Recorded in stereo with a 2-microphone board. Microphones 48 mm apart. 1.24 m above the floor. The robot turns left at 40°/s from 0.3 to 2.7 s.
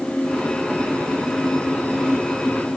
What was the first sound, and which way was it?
Only background noise.